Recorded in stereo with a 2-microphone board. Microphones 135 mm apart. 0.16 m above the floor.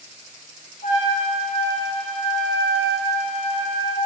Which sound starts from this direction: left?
A trumpet, at 0.8 s.